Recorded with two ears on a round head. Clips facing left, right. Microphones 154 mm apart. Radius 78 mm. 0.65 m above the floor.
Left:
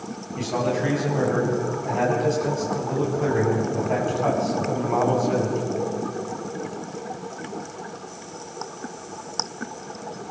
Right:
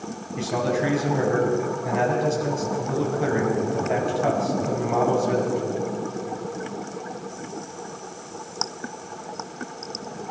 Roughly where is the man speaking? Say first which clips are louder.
Even; centre.